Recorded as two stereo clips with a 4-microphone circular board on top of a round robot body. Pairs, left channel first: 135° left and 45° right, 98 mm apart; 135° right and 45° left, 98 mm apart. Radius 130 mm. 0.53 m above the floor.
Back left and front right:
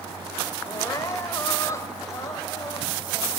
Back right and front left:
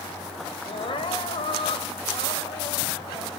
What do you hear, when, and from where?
0.7 s crying: 165° right, 2 m